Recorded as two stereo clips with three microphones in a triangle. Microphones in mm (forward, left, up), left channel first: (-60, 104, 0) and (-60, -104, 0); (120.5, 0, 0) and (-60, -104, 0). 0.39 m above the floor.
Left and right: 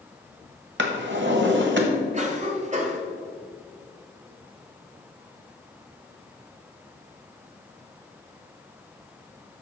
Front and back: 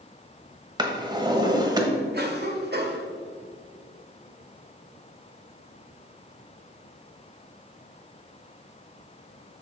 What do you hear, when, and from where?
0.8 s a drawer: 80° right, 1.2 m
2.1 s a cough: 135° right, 1.4 m